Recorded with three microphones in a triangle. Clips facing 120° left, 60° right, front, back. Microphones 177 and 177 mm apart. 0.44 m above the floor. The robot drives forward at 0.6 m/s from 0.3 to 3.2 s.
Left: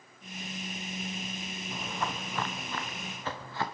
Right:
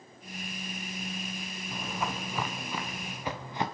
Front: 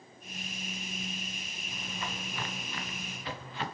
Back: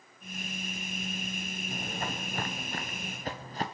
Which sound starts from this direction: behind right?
Footsteps, at 1.7 s.